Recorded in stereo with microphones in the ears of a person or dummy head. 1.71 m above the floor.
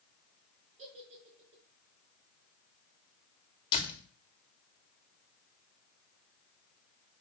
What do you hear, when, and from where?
0.8 s a giggle: 45° right (ahead or behind), 5.5 m
3.7 s a door slam: 20° left (ahead or behind), 3 m